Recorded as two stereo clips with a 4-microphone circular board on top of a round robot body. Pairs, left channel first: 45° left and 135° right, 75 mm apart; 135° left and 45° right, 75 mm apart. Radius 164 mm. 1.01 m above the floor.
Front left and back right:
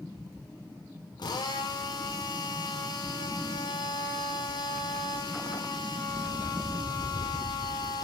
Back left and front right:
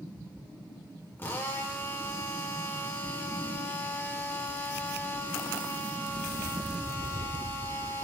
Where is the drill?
75° left, 5.5 m.